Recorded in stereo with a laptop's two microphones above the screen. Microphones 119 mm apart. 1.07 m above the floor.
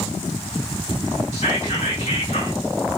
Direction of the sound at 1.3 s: 70° left (ahead or behind).